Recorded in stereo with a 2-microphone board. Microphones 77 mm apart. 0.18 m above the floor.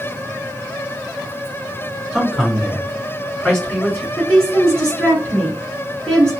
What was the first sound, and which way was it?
A man speaking, 5° right (ahead or behind).